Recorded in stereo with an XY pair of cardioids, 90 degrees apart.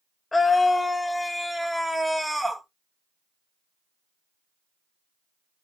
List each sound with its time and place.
0.3 s a scream: 25° left, 1.8 m; by 2.6 s 10° right, 2.0 m